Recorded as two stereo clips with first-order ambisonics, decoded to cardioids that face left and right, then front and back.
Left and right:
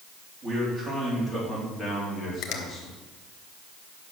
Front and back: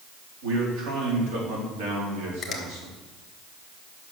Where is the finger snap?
75° left, 1.5 m.